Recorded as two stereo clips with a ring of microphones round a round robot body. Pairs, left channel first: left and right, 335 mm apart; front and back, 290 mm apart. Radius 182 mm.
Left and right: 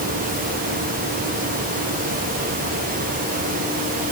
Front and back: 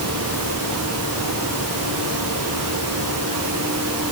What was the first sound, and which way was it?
Only background noise.